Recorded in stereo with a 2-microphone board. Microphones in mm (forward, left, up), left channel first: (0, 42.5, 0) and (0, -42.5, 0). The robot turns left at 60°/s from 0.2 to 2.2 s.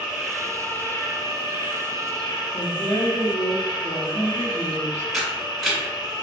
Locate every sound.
0.0 s an insect: 170° right, 0.8 m; by 6.2 s 70° left, 0.8 m
2.5 s a woman speaking: 50° left (ahead or behind), 1.3 m
5.1 s a camera shutter: 5° right (ahead or behind), 1.5 m